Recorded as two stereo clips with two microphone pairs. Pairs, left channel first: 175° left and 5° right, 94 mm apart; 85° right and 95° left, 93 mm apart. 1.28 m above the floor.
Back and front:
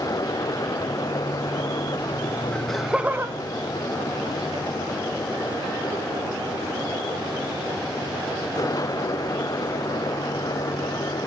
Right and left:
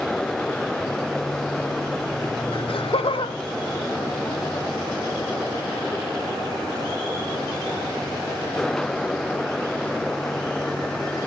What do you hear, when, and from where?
2.5 s laughter: 105° right, 1.5 m; by 6.3 s 5° right, 4.5 m